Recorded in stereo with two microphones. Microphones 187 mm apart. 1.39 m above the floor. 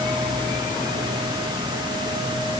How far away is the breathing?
I don't hear breathing.